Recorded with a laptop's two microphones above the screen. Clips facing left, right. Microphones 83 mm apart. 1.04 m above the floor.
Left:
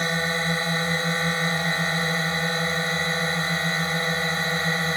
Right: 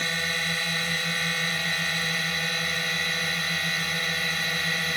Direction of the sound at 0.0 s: 30° left (ahead or behind).